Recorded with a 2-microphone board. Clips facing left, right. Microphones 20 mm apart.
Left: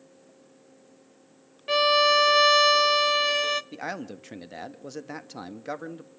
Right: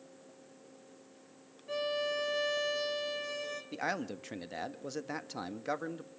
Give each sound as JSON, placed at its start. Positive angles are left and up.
{"t": 1.7, "sound": "a violin", "side_deg": 85, "distance_m": 0.8}
{"t": 3.7, "sound": "a man speaking", "side_deg": 0, "distance_m": 1.1}